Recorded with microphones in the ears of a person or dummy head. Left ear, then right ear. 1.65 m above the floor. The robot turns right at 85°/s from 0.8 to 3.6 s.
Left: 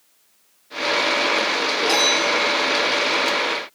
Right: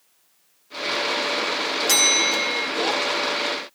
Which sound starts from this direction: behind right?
A bell, at 1.9 s.